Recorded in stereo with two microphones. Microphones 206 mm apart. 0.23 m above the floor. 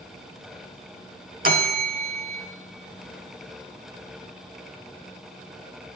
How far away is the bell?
About 0.5 m.